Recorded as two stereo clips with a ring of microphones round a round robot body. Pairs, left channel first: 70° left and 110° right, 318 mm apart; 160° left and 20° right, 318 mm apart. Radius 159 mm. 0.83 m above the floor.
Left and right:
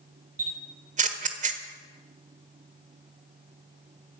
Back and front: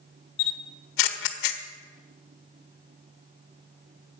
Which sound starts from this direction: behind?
A camera shutter, at 0.4 s.